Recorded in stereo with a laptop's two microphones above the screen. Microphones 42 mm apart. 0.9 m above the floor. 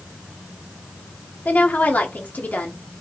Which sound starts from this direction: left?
A woman speaking, at 1.4 s.